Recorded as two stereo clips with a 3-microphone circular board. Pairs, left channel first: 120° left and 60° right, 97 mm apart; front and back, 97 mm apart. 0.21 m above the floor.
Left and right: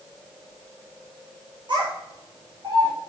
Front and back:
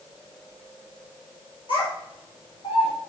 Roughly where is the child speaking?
Ahead right.